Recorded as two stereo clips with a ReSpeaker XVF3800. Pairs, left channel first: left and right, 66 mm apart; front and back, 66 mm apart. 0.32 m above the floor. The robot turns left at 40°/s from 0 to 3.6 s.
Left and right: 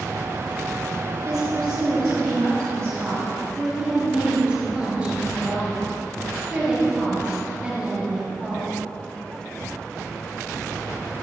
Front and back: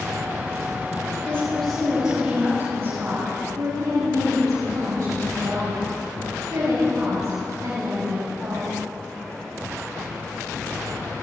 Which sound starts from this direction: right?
A woman speaking, at 1.2 s.